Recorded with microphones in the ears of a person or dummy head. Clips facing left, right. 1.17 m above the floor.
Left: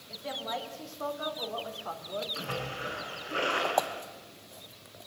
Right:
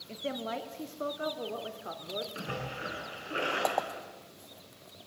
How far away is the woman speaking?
About 2 m.